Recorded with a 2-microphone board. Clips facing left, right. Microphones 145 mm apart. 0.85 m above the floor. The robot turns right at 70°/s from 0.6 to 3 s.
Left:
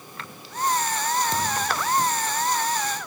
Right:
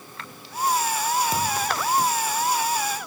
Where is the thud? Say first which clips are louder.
Right 1 dB; 5° right, 2.5 m; by 1.9 s 35° left, 2.5 m.